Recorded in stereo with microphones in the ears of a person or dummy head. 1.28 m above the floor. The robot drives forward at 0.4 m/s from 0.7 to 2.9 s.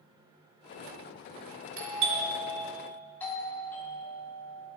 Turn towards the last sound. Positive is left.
turn(degrees=10)  # may be behind; listen again after turning